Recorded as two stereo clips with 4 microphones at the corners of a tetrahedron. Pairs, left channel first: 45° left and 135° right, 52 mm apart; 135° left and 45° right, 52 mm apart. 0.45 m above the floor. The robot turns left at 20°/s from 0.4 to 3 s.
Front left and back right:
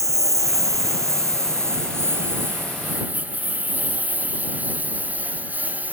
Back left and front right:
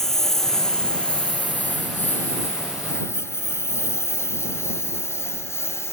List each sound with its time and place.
0.0 s a lawn mower: 140° right; by 5.9 s 170° left